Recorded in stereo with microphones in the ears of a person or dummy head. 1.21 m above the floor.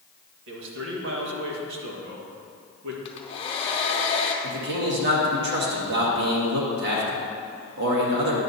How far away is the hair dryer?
About 0.8 m.